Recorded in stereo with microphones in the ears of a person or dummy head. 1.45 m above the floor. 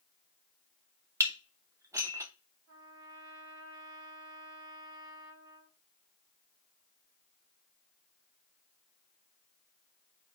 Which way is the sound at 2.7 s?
80° right.